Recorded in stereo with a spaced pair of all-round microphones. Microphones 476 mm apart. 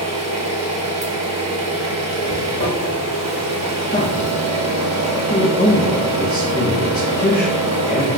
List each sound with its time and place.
0.0 s an engine running: 35° right (ahead or behind), 0.9 m
2.2 s a zipper: 45° left (ahead or behind), 1.1 m
3.9 s a man speaking: 20° left (ahead or behind), 0.7 m